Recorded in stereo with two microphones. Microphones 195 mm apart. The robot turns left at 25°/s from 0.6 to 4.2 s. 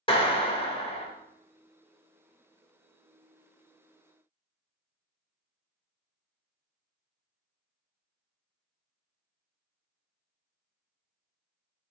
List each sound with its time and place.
0.1 s a clap: 30° left (ahead or behind), 0.7 m